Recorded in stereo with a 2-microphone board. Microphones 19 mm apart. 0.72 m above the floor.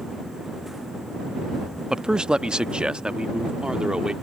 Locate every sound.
1.9 s a man speaking: 40° right (ahead or behind); by 4.1 s 50° right (ahead or behind)